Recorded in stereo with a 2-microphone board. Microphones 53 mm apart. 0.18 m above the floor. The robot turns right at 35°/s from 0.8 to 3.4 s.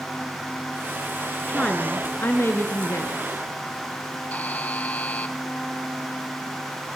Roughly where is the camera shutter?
I don't hear a camera shutter.